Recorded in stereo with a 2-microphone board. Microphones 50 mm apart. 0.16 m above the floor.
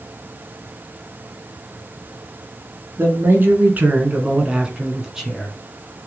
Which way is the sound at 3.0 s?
50° right (ahead or behind).